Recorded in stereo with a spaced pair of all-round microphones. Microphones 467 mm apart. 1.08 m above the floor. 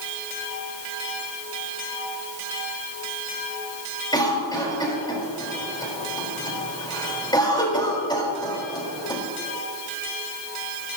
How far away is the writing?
No writing in this recording.